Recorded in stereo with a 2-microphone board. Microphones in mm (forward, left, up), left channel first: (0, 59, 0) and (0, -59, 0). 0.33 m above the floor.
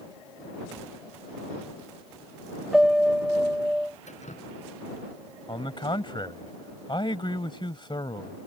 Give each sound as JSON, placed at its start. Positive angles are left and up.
{"t": 2.7, "sound": "a piano", "side_deg": -5}
{"t": 4.1, "sound": "dripping", "side_deg": 80}
{"t": 5.5, "sound": "a man speaking", "side_deg": 45}